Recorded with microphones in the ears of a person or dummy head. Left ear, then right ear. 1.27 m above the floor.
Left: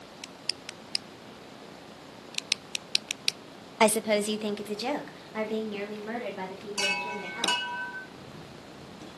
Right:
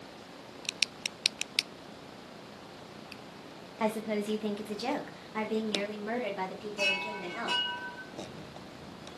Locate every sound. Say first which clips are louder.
3.8 s a woman speaking: left 8 dB; 70° left (ahead or behind), 0.5 m; by 7.7 s 20° right (ahead or behind), 2.5 m
6.8 s a chime: left 1 dB; 75° left (ahead or behind), 1.4 m
8.1 s a camera shutter: right 2 dB; 50° left (ahead or behind), 3.5 m